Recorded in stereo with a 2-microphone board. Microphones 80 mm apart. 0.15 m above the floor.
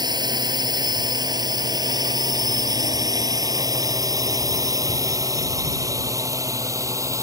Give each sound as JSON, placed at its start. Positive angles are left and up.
{"t": 0.0, "sound": "a drone", "side_deg": -60}